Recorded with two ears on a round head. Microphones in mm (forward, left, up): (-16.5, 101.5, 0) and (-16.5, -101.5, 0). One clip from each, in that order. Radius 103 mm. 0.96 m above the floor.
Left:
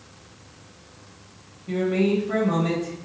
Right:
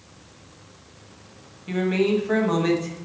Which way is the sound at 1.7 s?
55° right (ahead or behind).